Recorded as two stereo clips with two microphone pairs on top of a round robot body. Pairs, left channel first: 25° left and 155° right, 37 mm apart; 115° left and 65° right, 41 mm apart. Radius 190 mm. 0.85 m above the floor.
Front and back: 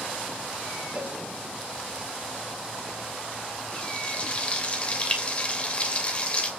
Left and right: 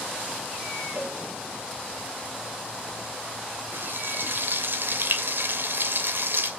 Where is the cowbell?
95° right, 3.5 m.